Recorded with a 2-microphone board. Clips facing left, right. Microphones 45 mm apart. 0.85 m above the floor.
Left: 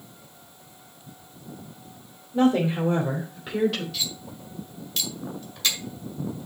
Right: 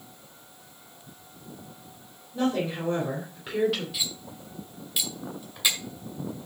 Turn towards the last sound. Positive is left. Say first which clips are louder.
# left 1 dB
turn(degrees=-10)  # may be behind; listen again after turning